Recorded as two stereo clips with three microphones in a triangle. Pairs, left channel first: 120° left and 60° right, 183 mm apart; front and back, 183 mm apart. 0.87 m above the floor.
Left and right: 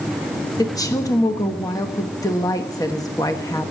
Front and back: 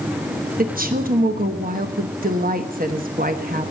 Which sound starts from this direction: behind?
A woman speaking, at 0.6 s.